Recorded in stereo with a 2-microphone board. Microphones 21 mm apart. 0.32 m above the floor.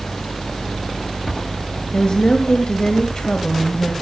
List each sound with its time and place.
1.9 s a woman speaking: 45° left (ahead or behind), 1.7 m